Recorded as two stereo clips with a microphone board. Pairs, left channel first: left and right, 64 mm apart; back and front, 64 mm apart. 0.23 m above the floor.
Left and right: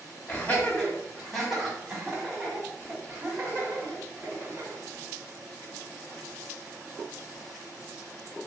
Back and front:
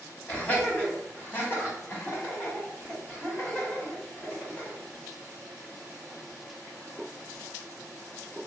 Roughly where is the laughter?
Behind left.